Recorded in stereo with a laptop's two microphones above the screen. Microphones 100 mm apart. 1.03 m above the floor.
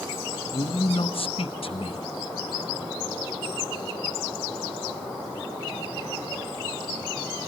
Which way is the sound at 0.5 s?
65° left (ahead or behind).